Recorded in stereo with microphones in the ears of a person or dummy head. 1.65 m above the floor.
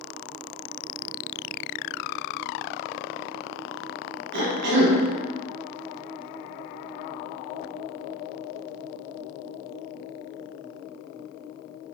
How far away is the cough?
About 1.1 m.